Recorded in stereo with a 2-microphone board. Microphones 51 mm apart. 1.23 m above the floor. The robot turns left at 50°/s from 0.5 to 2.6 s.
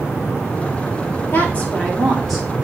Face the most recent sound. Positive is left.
turn(degrees=-20)